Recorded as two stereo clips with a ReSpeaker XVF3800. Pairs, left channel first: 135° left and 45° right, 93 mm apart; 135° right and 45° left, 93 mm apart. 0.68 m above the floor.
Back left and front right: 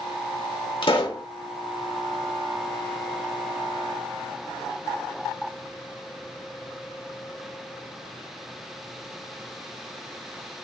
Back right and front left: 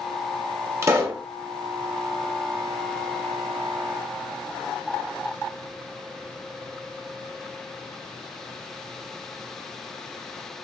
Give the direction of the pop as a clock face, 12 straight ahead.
9 o'clock.